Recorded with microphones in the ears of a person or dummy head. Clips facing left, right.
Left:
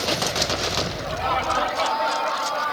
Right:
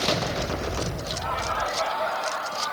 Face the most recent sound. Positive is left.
turn(degrees=80)